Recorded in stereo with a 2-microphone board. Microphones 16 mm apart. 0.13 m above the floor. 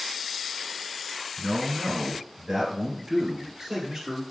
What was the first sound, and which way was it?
A man speaking, 30° right (ahead or behind).